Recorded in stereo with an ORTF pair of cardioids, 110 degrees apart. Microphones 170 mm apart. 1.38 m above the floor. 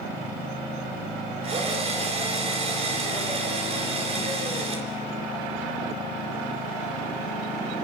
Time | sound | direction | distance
1.4 | a drill | 40° right | 3.5 m